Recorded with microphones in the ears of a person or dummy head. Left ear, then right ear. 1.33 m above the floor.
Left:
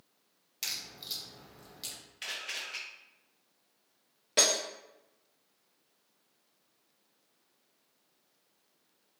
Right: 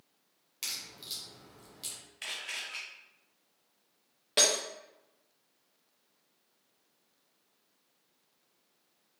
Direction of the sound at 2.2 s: 5° right (ahead or behind).